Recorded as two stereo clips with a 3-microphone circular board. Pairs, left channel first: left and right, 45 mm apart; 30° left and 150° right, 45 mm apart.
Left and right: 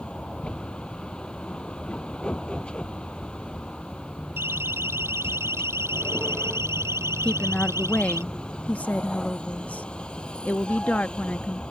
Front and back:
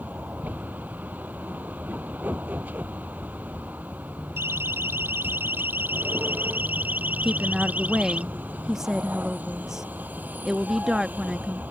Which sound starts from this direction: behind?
A vehicle, at 0.0 s.